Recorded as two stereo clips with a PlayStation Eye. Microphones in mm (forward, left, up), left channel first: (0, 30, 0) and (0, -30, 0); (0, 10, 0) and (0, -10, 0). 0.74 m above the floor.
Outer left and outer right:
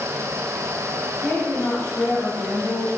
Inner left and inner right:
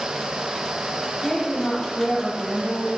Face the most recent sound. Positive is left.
turn(degrees=50)  # may be behind; listen again after turning